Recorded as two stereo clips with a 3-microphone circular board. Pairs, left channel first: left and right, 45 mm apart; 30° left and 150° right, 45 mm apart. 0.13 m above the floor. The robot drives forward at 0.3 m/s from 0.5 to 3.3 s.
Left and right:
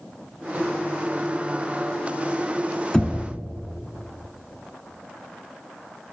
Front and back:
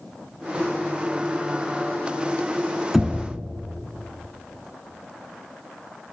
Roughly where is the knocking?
Behind left.